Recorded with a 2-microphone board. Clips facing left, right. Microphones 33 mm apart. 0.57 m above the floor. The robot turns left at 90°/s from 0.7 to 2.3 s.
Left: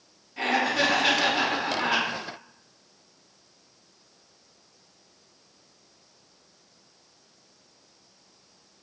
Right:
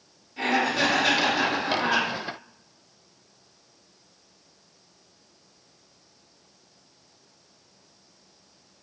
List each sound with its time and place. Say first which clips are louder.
0.4 s laughter: even; 150° left, 1.0 m; by 2.1 s 25° left, 1.0 m